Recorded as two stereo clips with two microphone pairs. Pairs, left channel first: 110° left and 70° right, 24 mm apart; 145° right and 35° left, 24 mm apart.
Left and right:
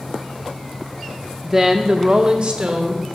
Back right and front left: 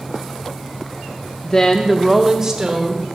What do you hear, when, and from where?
1.4 s a woman speaking: 140° right, 0.8 m; by 3.0 s 25° right, 1.8 m